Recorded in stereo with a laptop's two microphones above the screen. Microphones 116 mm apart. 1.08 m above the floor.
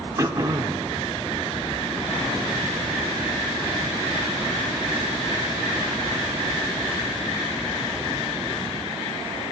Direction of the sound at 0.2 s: 25° right (ahead or behind).